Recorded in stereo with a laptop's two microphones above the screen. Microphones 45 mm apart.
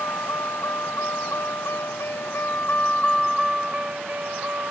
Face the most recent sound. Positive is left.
turn(degrees=-50)  # may be behind; listen again after turning